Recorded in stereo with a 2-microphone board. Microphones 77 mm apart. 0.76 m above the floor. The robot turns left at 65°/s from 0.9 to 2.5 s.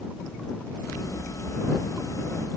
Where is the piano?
I don't hear a piano.